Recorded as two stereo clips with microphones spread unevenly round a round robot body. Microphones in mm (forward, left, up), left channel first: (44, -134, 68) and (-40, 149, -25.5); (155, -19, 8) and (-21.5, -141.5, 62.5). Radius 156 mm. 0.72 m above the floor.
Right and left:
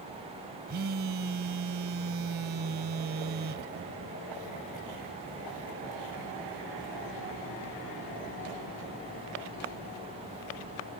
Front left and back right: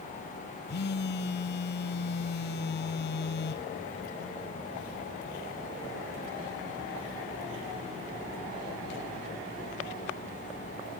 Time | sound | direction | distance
0.7 | a phone buzzing | 65° left | 1.0 m